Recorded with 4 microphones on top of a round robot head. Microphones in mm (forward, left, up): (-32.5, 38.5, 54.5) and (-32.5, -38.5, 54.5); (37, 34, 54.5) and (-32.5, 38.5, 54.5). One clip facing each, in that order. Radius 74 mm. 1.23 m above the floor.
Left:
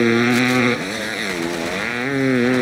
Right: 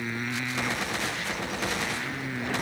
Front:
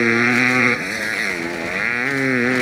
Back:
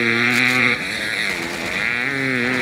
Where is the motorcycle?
70° left.